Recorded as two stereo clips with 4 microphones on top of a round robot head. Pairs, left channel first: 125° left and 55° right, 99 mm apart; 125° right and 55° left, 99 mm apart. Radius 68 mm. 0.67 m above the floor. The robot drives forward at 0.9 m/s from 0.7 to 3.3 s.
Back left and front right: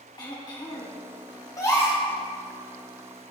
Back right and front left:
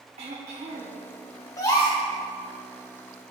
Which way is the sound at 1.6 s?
Straight behind.